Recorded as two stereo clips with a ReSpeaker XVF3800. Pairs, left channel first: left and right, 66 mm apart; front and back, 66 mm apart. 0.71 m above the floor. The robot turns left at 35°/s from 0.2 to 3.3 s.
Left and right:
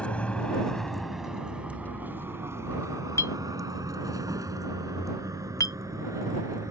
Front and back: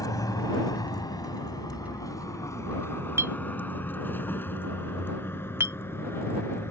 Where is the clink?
135° left; by 5.8 s 130° left.